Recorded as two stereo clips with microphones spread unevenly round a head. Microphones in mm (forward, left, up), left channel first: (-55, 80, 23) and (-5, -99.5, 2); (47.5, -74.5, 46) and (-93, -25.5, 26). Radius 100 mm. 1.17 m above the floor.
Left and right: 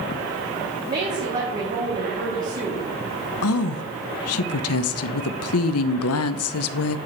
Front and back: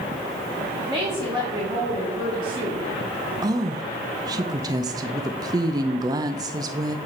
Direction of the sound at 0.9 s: 125° right.